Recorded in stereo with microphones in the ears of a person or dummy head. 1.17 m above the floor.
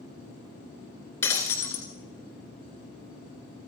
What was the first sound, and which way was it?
Breaking glass, 10° left (ahead or behind).